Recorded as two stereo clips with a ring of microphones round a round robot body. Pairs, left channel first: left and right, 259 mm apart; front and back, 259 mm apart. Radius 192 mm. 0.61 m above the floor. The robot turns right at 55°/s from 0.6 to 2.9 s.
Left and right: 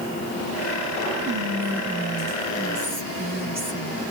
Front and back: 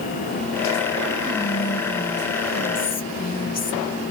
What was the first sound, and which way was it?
Whispering, 105° right.